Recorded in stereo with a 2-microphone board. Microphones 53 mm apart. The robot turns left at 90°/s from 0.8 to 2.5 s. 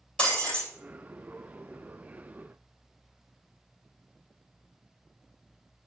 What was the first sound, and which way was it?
Breaking glass, 20° left (ahead or behind).